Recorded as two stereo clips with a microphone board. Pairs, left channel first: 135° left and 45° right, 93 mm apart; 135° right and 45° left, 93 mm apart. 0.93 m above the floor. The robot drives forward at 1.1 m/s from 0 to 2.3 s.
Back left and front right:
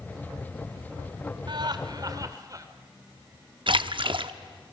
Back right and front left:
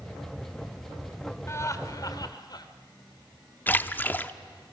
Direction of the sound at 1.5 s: 75° right.